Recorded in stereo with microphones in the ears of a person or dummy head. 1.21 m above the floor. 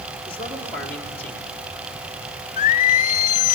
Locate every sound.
0.3 s a man speaking: 10° left (ahead or behind), 3.5 m
2.6 s singing: 40° left (ahead or behind), 0.7 m